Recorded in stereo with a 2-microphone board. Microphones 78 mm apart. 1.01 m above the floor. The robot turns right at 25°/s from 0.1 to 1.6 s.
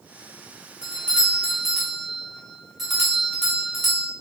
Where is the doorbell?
15° right (ahead or behind), 0.9 m; by 4.1 s 5° right (ahead or behind), 0.9 m.